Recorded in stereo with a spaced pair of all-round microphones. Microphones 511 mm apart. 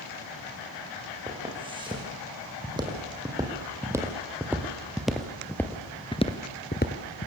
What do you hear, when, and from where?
1.3 s footsteps: 10° right (ahead or behind), 7 m; by 7.3 s 20° left (ahead or behind), 1.7 m